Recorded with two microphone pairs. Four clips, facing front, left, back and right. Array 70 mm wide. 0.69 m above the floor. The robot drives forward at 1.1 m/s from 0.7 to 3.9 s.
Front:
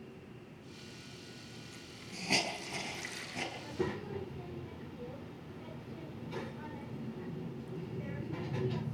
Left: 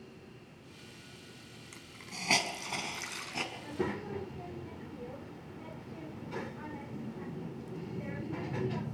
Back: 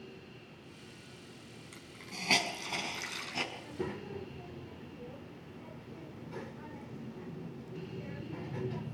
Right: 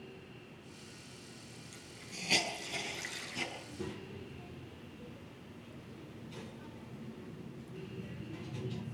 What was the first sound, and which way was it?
A hiss, 115° left.